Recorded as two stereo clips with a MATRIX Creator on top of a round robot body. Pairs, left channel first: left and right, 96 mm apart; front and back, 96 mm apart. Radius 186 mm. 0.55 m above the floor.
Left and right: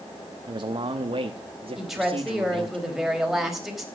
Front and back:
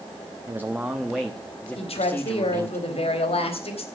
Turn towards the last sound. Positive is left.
turn(degrees=-5)